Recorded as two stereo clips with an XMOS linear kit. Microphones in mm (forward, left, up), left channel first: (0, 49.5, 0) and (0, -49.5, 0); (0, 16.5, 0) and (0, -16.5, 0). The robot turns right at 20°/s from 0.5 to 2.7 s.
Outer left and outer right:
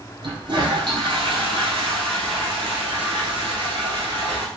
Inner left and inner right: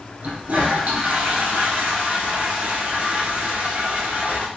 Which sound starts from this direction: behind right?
A toilet flushing, at 0.2 s.